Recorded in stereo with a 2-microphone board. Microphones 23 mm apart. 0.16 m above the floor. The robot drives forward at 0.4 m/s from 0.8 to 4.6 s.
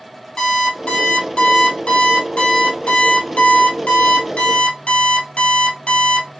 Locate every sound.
0.4 s an alarm clock: 45° left (ahead or behind), 2.5 m; by 6.3 s 75° left (ahead or behind), 1.8 m